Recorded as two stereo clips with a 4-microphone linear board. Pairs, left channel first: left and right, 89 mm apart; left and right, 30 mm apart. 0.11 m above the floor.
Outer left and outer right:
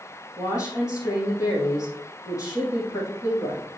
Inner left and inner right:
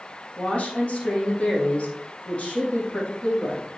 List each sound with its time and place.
0.4 s a woman speaking: 40° left (ahead or behind), 5 m